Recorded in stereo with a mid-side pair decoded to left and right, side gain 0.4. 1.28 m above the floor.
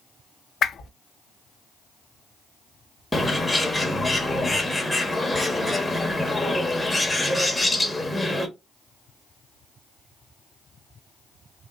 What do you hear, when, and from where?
0.6 s a whoosh: 60° left, 0.7 m
3.1 s a bird: 10° left, 1.2 m